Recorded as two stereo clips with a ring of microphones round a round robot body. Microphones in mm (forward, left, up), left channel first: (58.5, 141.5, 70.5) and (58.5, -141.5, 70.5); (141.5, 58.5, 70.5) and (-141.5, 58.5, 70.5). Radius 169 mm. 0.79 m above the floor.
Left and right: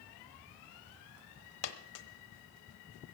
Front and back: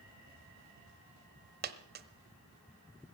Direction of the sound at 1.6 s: 125° left.